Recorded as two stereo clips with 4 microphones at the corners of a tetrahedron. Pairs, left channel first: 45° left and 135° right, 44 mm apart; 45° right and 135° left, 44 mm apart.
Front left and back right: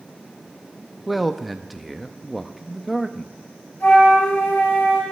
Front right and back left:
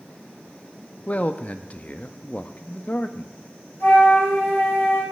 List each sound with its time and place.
1.1 s a man speaking: 50° right, 0.6 m
3.8 s a flute: 5° right, 5.5 m